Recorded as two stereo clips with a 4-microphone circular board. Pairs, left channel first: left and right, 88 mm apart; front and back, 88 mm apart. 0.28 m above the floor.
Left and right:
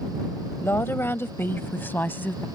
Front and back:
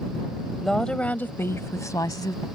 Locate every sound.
0.6 s a woman speaking: 90° left; by 2.5 s 25° left